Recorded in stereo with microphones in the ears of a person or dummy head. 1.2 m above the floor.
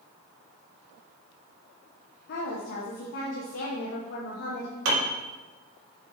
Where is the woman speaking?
60° left (ahead or behind), 1.2 m.